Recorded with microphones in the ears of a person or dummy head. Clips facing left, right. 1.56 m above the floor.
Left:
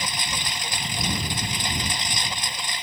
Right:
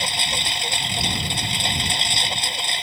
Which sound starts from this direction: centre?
A lawn mower, at 0.0 s.